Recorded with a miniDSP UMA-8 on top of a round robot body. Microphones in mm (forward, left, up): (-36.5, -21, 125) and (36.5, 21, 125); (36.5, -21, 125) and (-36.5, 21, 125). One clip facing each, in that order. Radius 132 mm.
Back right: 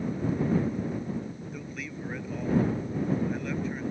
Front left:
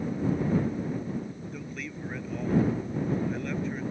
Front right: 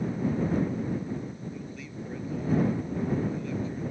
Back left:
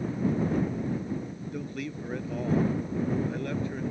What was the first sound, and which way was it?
A man speaking, 125° left.